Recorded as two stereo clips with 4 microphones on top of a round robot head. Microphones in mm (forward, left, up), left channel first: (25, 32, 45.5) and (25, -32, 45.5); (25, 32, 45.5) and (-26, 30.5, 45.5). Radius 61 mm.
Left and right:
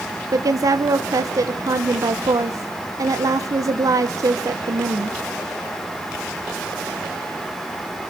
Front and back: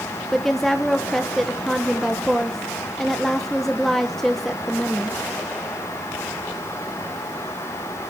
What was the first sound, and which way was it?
A woman speaking, 85° right.